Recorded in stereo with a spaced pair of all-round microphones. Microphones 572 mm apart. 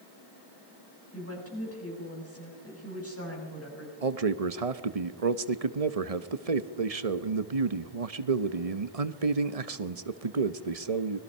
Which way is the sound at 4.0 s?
85° right.